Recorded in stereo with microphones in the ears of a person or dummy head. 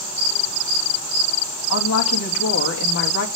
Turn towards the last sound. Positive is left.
turn(degrees=85)